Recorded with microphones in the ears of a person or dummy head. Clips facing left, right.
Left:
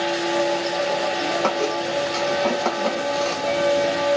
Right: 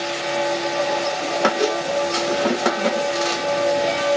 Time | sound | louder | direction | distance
1.4 | a squeak | right 2 dB | 15° right (ahead or behind) | ?